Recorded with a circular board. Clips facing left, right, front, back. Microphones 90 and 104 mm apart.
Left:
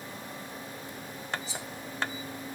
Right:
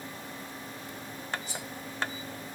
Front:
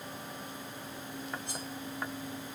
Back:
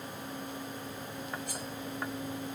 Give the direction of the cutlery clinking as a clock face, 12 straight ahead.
2 o'clock.